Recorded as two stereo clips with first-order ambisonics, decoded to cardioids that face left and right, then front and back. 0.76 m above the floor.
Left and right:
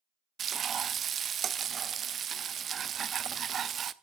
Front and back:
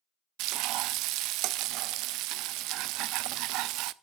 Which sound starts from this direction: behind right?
Frying, at 0.4 s.